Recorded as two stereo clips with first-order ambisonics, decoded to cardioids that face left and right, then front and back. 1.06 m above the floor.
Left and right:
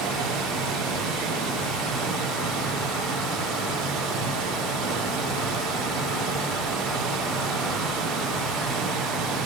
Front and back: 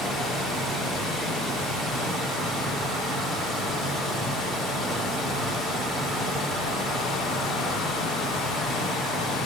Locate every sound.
0.0 s running water: 100° right, 3 m